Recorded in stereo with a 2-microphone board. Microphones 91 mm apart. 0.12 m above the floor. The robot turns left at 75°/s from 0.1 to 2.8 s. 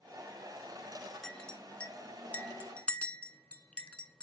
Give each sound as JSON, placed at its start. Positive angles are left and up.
{"t": 1.2, "sound": "a clink", "side_deg": 5, "distance_m": 0.8}